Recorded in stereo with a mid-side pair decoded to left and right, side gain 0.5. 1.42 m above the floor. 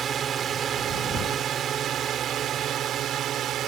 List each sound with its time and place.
0.0 s a drone: 45° right; by 3.7 s 60° right